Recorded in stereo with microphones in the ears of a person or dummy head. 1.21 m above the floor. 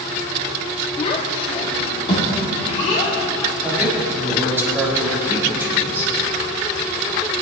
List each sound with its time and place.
1.0 s a child speaking: 30° left (ahead or behind), 1.8 m; by 3.1 s 35° left (ahead or behind), 3 m
3.6 s a man speaking: 10° right (ahead or behind), 3.5 m